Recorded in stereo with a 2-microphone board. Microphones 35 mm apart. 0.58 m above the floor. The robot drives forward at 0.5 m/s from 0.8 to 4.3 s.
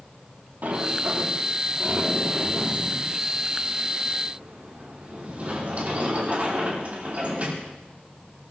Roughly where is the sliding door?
Right.